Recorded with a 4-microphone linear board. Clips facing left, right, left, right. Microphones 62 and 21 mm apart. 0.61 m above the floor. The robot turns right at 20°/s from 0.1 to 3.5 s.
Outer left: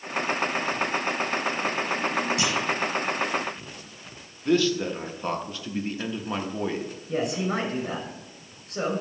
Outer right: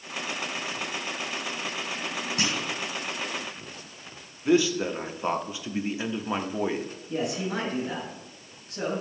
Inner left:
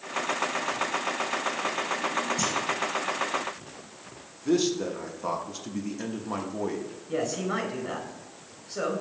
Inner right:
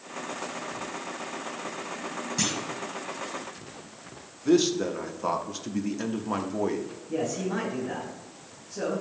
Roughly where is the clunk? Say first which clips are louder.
Outer left 4 dB, inner left 2 dB; right.